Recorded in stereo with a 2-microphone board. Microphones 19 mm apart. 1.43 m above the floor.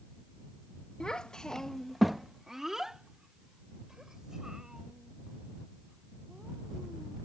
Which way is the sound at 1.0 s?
50° left (ahead or behind).